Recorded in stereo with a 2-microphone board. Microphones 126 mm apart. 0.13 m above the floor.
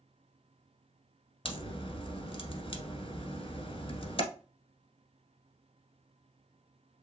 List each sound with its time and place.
1.4 s a crack: 45° left (ahead or behind), 1.4 m